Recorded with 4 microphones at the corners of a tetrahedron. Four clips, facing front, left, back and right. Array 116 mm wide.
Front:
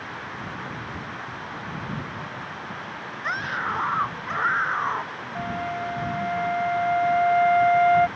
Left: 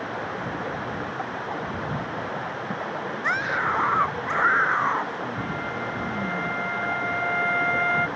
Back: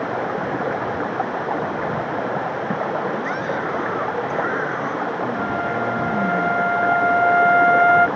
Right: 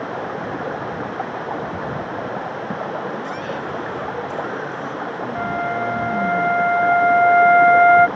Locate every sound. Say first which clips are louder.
0.0 s running water: right 4 dB, back 12 dB; 160° right
3.2 s a scream: left 2 dB, back 4 dB; 60° left
5.3 s a flute: right 8 dB, back 7 dB; 110° right